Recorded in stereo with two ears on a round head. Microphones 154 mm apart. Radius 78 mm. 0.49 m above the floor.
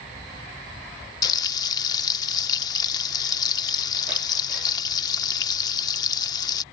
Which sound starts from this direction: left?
Frying, at 1.2 s.